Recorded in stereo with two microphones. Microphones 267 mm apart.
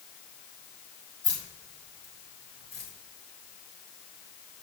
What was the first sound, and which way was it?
Keys jangling, 65° left (ahead or behind).